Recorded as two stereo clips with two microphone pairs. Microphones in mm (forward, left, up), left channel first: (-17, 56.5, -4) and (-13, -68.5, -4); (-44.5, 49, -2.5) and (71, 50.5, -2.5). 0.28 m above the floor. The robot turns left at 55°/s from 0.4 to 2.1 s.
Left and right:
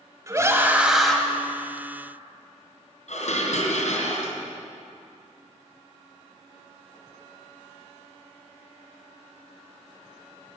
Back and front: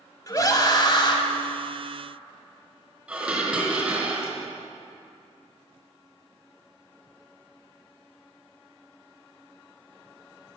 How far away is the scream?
About 1.7 m.